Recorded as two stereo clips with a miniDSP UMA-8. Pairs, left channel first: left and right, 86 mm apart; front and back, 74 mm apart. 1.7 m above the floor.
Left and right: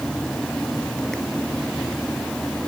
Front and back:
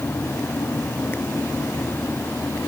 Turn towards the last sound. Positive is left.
No sound to turn to.